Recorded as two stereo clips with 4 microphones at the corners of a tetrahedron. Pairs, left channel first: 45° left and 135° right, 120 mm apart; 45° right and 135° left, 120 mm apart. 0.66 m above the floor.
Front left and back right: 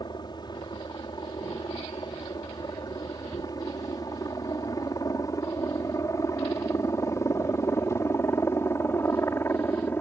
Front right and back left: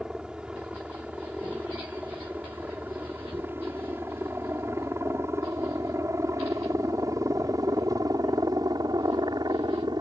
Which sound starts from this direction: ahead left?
A helicopter, at 0.0 s.